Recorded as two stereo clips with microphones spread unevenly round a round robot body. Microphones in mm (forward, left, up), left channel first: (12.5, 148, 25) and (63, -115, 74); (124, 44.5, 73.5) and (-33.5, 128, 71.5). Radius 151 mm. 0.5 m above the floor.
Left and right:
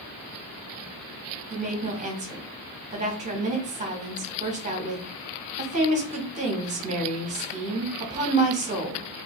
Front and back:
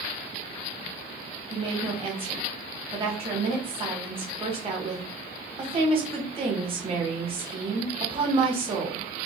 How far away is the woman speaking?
About 1.3 m.